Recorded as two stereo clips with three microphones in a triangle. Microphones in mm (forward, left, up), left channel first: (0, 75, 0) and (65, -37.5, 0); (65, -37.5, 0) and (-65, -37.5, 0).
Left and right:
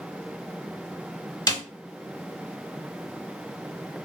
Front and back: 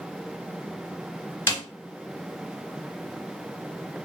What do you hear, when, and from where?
1.5 s a snare drum: 65° left, 0.6 m